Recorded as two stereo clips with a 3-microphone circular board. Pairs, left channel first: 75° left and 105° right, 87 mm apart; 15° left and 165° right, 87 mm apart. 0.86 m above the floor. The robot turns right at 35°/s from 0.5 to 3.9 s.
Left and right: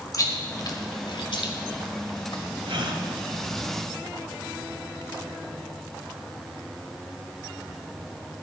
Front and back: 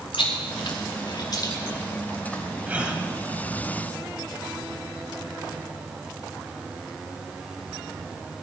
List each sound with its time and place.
0.1 s chewing: 30° left, 1.9 m; by 2.4 s 95° left, 1.9 m
2.7 s a gasp: 95° right, 1.6 m; by 3.0 s 80° right, 1.6 m